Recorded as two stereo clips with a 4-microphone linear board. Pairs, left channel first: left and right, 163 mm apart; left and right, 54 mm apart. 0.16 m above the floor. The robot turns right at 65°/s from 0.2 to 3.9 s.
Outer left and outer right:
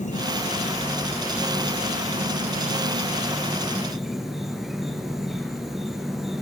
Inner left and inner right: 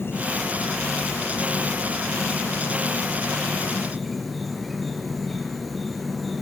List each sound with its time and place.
0.0 s an insect: 120° left, 2.5 m; by 6.4 s straight ahead, 2.5 m